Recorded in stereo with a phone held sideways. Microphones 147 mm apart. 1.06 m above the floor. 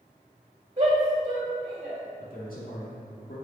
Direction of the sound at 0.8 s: 40° right (ahead or behind).